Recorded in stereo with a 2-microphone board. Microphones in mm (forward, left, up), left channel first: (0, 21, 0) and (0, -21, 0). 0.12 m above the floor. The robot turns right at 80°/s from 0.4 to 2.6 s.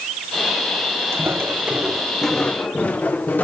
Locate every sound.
1.1 s footsteps: 90° right, 3 m; by 3.5 s 45° left (ahead or behind), 2 m